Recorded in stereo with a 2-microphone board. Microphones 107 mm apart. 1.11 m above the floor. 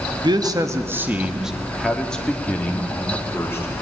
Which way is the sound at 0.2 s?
45° right (ahead or behind).